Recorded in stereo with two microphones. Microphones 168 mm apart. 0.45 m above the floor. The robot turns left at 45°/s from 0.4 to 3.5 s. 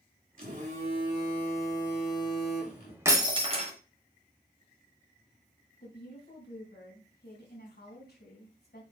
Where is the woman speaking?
70° left (ahead or behind), 3.5 m.